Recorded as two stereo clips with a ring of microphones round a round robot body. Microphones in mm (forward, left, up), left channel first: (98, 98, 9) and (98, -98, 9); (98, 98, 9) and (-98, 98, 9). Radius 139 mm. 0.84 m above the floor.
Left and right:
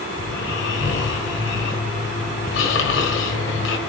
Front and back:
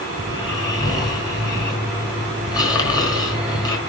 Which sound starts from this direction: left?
Snoring, at 0.2 s.